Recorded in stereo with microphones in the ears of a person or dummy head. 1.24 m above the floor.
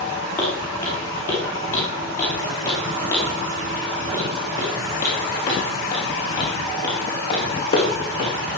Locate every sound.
0.4 s footsteps: 5° left (ahead or behind), 8 m; by 8.3 s 20° left (ahead or behind), 3.5 m